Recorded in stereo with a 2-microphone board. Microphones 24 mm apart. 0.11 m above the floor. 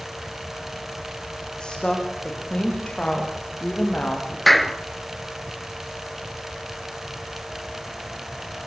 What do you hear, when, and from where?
1.6 s a woman speaking: 35° left (ahead or behind), 8.5 m; by 4.4 s 60° left (ahead or behind), 9.5 m
4.5 s a clap: 5° left (ahead or behind), 1.3 m